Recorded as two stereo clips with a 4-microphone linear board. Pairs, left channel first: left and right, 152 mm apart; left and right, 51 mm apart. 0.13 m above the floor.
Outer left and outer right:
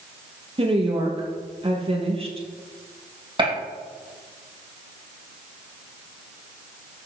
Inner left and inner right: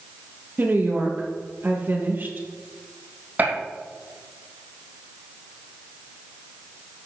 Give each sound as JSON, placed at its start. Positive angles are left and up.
{"t": 0.6, "sound": "a woman speaking", "side_deg": -40, "distance_m": 2.5}
{"t": 3.4, "sound": "a gunshot", "side_deg": -35, "distance_m": 3.5}